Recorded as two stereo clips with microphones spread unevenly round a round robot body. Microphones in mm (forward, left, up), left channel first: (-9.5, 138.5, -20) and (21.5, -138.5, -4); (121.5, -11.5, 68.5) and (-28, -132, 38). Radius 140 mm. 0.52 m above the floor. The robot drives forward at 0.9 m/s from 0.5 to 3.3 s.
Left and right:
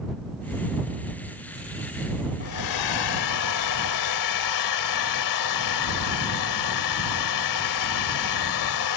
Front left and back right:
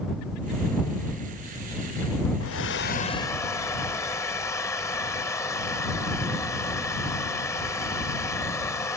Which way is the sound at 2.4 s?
65° left.